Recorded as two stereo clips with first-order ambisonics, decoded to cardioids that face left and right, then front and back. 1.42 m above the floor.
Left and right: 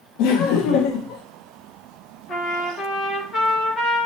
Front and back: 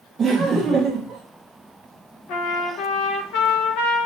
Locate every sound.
0.2 s laughter: 105° left, 0.7 m
2.3 s a trumpet: 20° left, 0.9 m